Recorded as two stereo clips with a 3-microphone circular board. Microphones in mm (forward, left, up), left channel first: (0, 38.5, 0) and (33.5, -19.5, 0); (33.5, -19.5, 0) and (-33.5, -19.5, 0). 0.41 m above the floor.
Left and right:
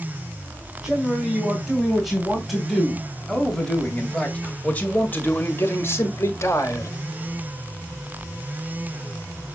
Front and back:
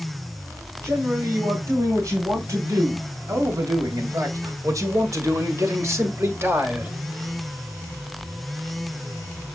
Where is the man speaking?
140° right, 3.5 m; by 6.9 s 130° left, 1.9 m.